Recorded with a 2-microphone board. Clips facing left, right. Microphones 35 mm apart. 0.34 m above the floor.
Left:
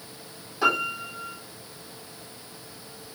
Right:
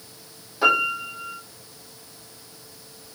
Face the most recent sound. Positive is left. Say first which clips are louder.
# right 4 dB
turn(degrees=-10)  # may be behind; listen again after turning